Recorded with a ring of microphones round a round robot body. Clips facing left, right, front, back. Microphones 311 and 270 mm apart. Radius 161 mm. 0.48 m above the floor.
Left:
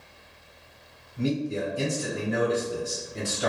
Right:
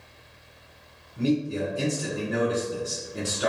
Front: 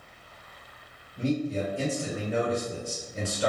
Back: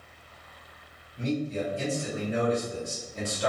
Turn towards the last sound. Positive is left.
turn(degrees=-80)